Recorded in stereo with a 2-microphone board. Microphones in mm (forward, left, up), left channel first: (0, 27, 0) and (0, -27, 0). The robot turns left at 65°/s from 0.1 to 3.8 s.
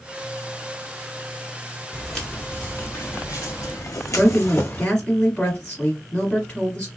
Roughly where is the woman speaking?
Left.